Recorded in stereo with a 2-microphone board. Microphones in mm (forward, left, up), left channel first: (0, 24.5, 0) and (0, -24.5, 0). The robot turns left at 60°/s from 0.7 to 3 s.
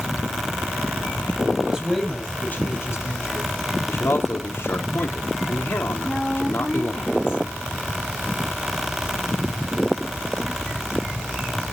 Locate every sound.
1.6 s a man speaking: 160° right, 7.5 m; by 3.5 s 115° left, 7.5 m
3.9 s a man speaking: 60° left (ahead or behind), 3 m
6.0 s a woman speaking: 15° right (ahead or behind), 4 m